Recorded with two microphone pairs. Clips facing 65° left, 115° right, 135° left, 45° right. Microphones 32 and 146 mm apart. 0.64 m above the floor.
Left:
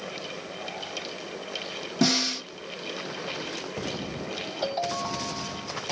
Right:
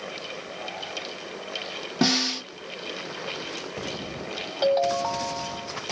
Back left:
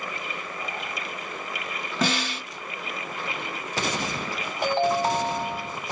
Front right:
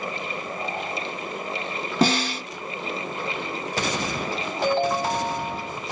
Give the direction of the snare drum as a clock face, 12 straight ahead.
3 o'clock.